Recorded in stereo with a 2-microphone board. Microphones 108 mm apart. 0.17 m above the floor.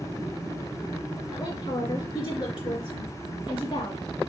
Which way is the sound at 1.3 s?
50° left (ahead or behind).